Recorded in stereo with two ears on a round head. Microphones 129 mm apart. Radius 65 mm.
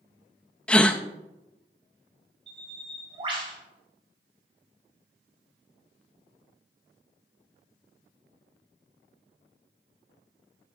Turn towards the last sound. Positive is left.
turn(degrees=-40)  # may be behind; listen again after turning